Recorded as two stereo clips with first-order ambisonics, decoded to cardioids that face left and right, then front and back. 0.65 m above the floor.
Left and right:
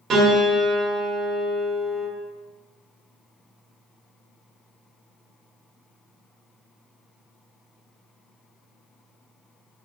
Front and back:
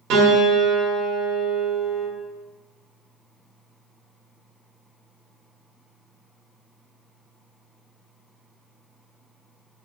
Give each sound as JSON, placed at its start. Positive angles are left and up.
{"t": 0.1, "sound": "a piano", "azimuth_deg": -145, "distance_m": 0.6}